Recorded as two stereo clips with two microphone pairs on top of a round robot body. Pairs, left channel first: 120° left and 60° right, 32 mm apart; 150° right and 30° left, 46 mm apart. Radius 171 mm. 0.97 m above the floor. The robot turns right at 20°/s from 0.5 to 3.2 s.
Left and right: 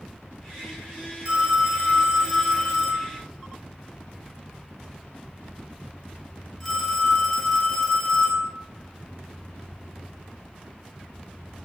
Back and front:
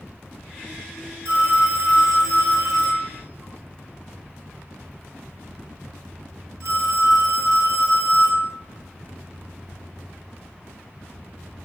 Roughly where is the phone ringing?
Ahead.